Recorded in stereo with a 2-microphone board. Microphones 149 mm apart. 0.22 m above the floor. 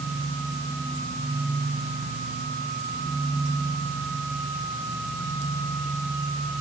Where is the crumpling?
I don't hear crumpling.